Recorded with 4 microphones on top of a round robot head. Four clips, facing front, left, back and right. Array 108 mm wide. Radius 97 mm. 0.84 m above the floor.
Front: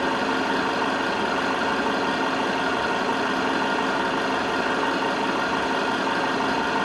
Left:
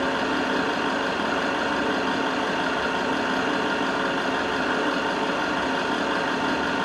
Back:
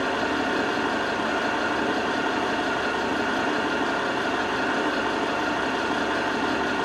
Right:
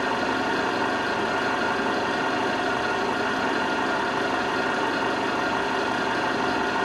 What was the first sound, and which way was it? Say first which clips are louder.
An engine running: even, front 1 dB; 35° right.